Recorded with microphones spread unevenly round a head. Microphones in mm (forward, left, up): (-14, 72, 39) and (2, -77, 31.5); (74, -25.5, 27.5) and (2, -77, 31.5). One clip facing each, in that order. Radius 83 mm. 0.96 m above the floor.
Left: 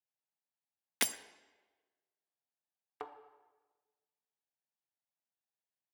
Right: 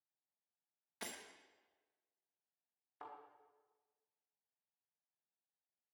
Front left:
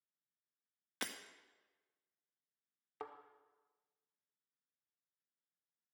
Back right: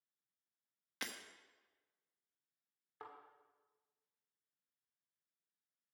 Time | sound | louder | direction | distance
1.0 | breaking glass | left 9 dB, front left 2 dB | 105° left | 0.7 m
3.0 | a thud | left 7 dB, front left 5 dB | 85° left | 1.2 m